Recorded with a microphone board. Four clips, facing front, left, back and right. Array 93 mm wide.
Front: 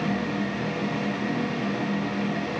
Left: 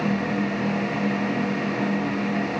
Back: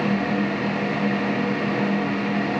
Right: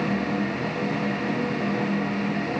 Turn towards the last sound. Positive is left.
No sound to turn to.